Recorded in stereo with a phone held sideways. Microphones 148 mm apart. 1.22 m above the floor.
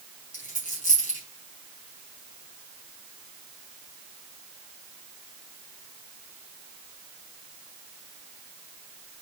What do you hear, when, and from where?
0.3 s a dropped coin: 70° left (ahead or behind), 4 m